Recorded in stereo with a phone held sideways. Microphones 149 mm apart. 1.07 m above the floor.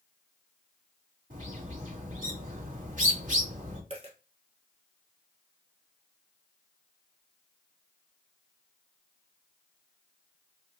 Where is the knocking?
No knocking in this recording.